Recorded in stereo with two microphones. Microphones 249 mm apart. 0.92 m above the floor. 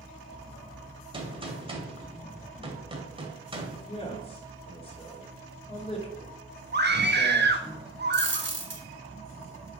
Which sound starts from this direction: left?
A man speaking, at 3.9 s.